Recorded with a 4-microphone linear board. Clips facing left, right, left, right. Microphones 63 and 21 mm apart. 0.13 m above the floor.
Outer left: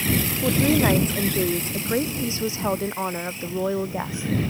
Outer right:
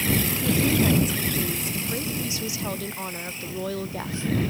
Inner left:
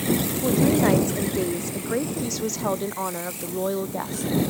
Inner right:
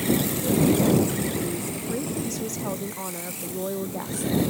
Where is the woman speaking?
45° left (ahead or behind); by 4.3 s 15° left (ahead or behind).